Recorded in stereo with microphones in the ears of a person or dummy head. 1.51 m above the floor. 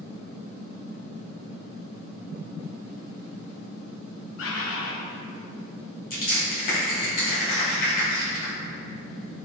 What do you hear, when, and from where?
4.4 s a bird: 70° left (ahead or behind), 0.5 m
6.1 s crushing: 45° left (ahead or behind), 1.0 m